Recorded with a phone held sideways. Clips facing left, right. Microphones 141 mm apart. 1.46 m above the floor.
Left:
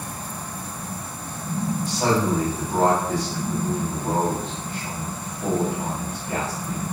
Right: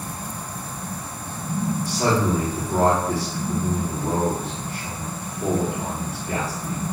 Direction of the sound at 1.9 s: 75° right (ahead or behind).